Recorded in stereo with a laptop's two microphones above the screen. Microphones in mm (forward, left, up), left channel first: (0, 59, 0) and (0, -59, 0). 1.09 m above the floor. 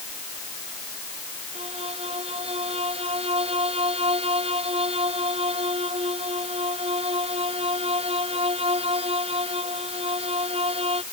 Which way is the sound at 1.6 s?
55° right (ahead or behind).